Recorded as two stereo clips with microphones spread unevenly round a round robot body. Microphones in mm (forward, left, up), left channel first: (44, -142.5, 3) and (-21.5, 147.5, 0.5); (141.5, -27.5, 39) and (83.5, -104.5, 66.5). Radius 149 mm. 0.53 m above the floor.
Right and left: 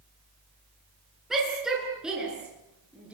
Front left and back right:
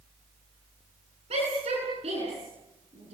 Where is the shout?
170° right, 9 m.